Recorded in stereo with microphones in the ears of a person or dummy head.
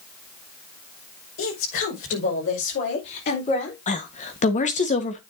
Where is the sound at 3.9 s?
35° left (ahead or behind), 1.4 m.